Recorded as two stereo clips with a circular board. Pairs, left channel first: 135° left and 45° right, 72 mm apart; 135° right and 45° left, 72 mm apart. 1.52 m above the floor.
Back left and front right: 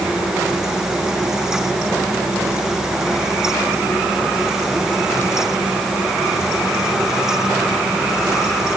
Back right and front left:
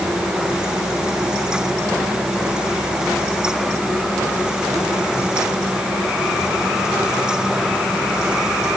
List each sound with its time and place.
Only background noise.